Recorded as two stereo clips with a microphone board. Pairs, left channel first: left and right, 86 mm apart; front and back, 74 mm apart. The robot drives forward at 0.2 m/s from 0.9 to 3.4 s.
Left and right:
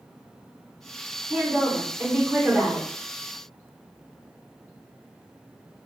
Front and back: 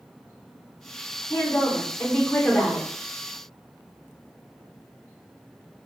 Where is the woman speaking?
30° right, 0.9 m; by 2.9 s 60° right, 0.8 m.